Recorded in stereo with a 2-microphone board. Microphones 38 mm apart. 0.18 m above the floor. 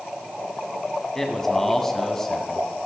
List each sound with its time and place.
1.1 s a man speaking: 10° left (ahead or behind), 1.2 m